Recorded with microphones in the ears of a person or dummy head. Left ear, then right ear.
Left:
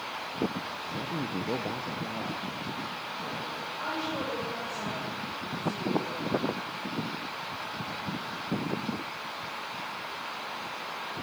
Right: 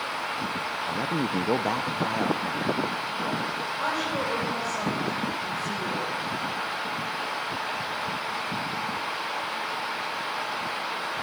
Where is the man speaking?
55° right (ahead or behind), 0.8 m; by 3.7 s 45° right (ahead or behind), 2.5 m.